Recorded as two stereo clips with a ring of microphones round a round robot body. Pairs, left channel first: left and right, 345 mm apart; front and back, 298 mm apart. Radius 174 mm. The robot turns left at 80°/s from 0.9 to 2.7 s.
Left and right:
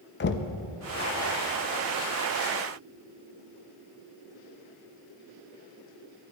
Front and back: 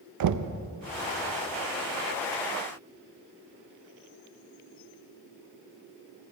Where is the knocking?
150° left, 0.6 m.